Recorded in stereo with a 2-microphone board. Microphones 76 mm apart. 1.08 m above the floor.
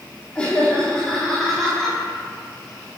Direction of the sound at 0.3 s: 15° left (ahead or behind).